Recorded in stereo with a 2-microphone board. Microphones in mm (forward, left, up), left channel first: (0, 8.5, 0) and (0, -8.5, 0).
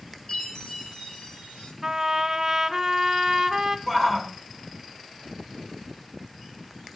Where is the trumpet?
30° right (ahead or behind), 1.6 m.